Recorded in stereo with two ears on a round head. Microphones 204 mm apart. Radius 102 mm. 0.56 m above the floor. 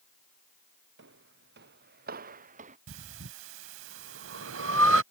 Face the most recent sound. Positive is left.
turn(degrees=-60)  # may be behind; listen again after turning